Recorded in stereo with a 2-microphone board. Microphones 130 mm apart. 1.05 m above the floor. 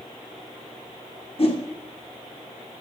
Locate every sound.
1.4 s a whoosh: 45° left (ahead or behind), 1.9 m